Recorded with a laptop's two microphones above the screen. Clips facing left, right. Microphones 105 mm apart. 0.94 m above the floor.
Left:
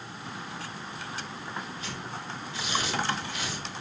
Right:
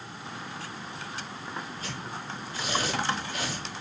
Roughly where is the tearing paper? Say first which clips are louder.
Even; right.